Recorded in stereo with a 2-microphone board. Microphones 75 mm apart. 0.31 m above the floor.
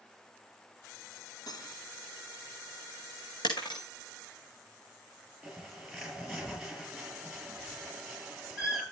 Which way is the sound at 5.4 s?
Centre (ahead or behind).